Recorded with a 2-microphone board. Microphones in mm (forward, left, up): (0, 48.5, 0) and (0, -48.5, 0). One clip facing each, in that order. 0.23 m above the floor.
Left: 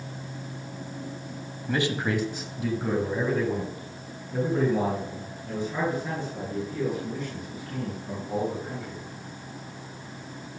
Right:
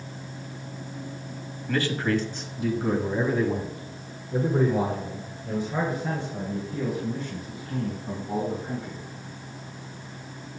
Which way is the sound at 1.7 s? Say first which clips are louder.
Right 1 dB; 20° left (ahead or behind).